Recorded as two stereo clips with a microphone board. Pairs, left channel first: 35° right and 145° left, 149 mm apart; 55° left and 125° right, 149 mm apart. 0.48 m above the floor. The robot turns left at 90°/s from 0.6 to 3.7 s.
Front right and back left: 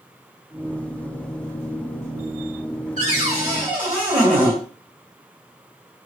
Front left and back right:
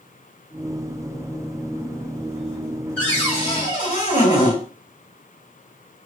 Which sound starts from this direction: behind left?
A cupboard door, at 3.0 s.